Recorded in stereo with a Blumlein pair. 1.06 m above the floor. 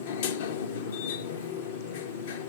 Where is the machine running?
55° left, 0.7 m.